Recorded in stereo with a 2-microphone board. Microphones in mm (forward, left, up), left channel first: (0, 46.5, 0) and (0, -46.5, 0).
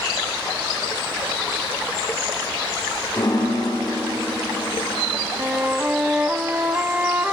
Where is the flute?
20° right (ahead or behind), 1.3 m.